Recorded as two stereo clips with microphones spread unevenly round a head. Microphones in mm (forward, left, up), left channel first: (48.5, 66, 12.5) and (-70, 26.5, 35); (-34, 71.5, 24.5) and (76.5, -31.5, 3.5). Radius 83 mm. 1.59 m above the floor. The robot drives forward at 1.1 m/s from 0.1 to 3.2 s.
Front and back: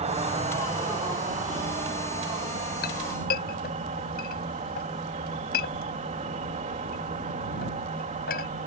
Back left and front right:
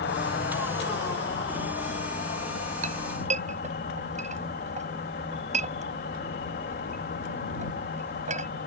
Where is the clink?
Straight ahead.